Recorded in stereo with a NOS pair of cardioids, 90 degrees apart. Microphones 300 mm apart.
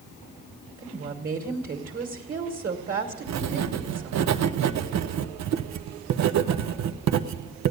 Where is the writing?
65° right, 0.7 m.